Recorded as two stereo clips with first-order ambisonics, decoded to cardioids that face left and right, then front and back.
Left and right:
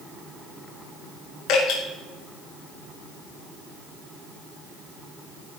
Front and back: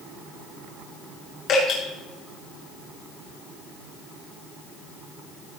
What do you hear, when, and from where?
1.5 s dripping: 50° left, 5.5 m